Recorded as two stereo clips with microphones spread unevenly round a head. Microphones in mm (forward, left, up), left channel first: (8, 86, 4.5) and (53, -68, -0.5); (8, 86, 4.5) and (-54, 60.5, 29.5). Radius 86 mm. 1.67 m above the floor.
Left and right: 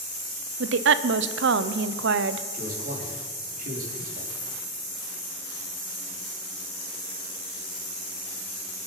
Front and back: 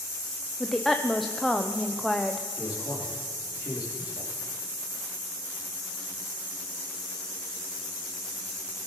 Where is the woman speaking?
70° right, 0.8 m.